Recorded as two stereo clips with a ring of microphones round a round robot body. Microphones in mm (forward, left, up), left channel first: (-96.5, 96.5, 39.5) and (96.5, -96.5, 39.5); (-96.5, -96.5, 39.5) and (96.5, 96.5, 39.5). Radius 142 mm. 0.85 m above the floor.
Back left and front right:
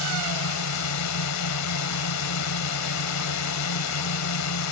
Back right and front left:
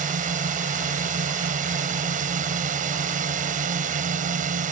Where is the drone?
110° left.